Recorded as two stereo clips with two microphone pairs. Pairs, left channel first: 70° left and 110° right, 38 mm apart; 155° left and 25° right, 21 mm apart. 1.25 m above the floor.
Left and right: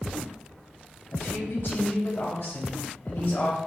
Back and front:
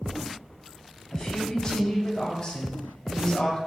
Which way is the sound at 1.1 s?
90° left.